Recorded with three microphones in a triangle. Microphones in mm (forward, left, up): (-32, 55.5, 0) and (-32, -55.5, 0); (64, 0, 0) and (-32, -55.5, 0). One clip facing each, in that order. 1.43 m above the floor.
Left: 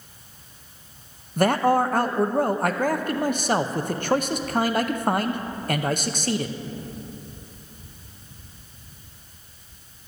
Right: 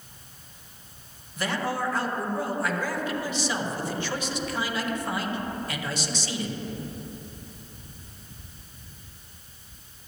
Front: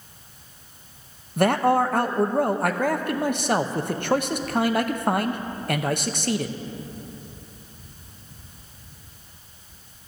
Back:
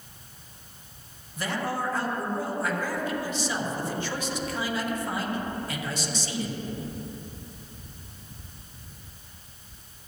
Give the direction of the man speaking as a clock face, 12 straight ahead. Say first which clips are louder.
Left 10 dB, front 11 dB; 10 o'clock.